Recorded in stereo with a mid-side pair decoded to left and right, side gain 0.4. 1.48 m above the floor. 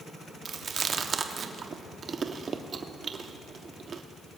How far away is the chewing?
About 1.1 m.